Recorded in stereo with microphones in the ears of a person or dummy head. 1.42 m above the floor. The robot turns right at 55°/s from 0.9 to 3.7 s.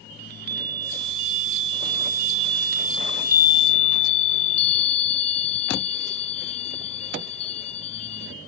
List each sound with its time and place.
0.2 s a chime: 115° right; by 8.3 s 35° left